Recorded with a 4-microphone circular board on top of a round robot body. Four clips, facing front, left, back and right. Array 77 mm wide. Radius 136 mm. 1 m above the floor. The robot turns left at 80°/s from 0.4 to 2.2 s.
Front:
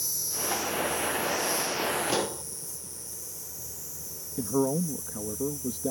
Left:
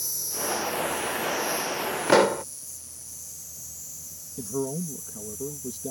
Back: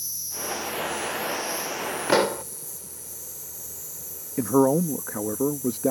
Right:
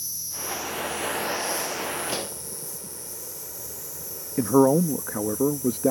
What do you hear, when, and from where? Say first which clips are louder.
0.0 s an insect: left 5 dB, even; 50° left; by 5.9 s 95° right
2.1 s a pop: left 14 dB, back 8 dB; 125° left; by 2.4 s 120° left
4.4 s a man speaking: right 13 dB, back 7 dB; 125° right